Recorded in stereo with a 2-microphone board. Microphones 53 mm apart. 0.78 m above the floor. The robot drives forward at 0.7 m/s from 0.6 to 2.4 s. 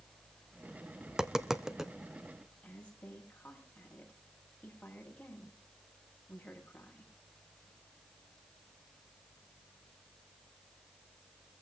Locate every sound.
1.1 s tapping: 10° right (ahead or behind), 0.8 m
2.6 s a woman speaking: 20° left (ahead or behind), 7.5 m